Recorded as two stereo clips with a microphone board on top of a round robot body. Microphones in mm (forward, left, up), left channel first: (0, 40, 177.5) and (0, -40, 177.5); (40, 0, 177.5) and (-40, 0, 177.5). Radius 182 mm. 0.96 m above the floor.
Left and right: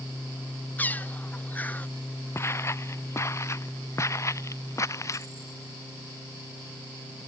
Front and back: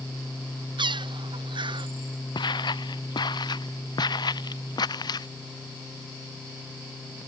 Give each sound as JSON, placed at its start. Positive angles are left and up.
{"t": 0.8, "sound": "a bird", "azimuth_deg": 160}
{"t": 2.4, "sound": "footsteps", "azimuth_deg": 30}